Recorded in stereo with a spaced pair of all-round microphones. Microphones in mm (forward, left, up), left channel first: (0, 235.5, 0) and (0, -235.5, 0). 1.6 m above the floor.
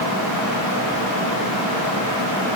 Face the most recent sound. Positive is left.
No sound to turn to.